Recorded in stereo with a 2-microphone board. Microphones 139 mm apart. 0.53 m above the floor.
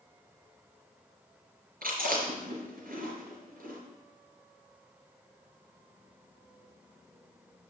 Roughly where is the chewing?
Right.